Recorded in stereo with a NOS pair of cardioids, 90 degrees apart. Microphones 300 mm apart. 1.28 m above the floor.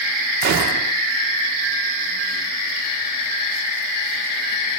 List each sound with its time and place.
0.4 s a gunshot: 70° right, 1.6 m